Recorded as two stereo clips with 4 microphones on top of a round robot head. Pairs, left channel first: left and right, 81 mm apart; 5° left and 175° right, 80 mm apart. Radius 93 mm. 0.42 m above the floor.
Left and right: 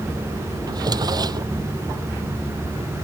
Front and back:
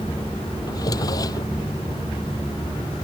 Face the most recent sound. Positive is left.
turn(degrees=-50)